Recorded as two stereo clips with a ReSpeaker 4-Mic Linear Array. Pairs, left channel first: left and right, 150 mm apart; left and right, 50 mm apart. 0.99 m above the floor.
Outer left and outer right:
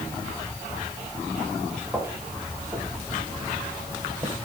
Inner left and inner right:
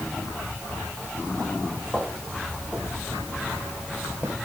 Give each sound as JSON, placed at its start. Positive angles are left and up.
{"t": 1.9, "sound": "footsteps", "side_deg": -10, "distance_m": 5.0}